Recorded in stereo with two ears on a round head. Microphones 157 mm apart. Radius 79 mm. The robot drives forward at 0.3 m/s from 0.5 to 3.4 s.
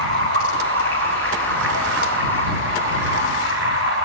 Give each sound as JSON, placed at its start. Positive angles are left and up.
{"t": 0.0, "sound": "running water", "side_deg": -85, "distance_m": 7.0}